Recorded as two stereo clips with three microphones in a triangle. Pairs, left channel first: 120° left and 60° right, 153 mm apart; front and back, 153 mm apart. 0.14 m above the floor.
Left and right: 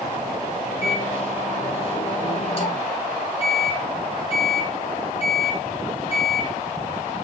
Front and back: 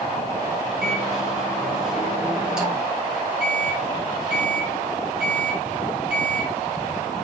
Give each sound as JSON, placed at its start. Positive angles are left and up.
{"t": 0.8, "sound": "a microwave", "azimuth_deg": 95, "distance_m": 1.5}